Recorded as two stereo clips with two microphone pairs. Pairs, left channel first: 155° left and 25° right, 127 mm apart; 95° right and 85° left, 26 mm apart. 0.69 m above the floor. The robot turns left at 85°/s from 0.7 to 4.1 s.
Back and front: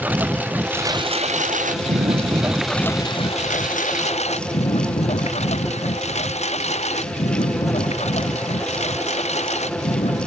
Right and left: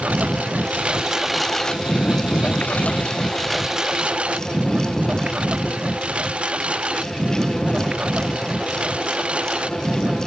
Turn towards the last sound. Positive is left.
turn(degrees=125)